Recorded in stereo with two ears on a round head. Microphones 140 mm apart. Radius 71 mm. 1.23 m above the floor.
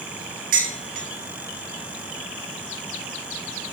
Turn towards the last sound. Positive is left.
turn(degrees=-55)  # may be behind; listen again after turning